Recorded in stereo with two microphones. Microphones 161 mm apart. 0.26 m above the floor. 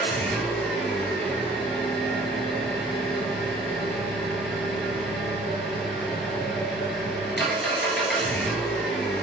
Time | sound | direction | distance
0.0 | an engine running | centre (ahead or behind) | 1.3 m